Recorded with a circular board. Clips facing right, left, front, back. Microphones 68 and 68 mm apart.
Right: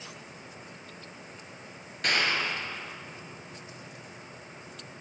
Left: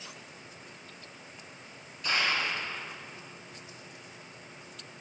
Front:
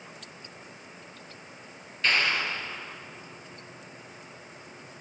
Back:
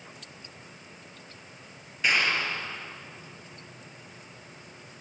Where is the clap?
100° right, 4.5 m.